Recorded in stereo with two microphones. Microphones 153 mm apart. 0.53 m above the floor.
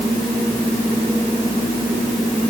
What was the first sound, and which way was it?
Only background noise.